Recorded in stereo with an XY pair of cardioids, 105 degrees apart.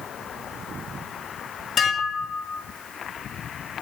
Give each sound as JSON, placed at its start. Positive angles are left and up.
{"t": 1.8, "sound": "dishes clattering", "azimuth_deg": 45, "distance_m": 2.5}